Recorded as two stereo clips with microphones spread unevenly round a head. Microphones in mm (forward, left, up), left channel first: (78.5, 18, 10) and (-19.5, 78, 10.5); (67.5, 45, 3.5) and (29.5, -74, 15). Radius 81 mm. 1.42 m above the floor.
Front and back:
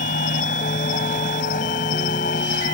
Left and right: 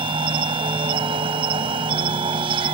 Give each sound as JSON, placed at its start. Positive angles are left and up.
{"t": 0.0, "sound": "an insect", "azimuth_deg": -60}